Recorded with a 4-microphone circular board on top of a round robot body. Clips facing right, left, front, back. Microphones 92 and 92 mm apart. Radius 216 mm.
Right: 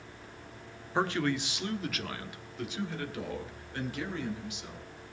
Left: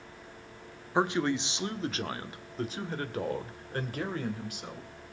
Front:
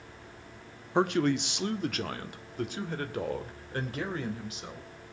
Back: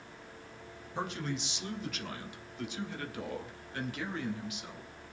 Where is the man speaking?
15° left, 1.4 m; by 4.9 s 50° left, 3 m.